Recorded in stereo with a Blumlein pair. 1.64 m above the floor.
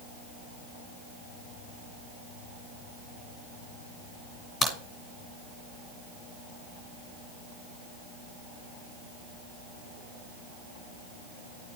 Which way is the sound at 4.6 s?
15° left.